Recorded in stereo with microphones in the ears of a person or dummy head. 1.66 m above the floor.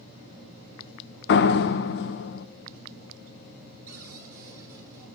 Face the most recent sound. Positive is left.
turn(degrees=-15)  # may be behind; listen again after turning